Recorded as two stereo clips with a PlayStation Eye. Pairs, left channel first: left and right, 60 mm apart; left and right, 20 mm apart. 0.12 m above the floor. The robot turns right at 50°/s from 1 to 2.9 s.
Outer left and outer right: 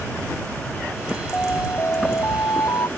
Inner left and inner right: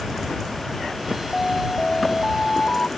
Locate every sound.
1.3 s an alarm: 20° left; by 2.9 s 100° left